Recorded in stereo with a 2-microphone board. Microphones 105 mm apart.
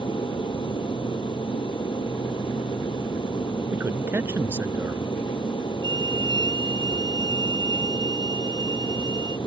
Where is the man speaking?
25° right (ahead or behind).